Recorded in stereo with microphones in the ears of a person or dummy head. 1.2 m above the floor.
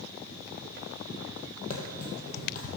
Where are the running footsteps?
50° left (ahead or behind), 2 m.